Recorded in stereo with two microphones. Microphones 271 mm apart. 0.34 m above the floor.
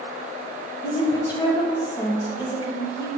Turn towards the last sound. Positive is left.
turn(degrees=15)  # may be behind; listen again after turning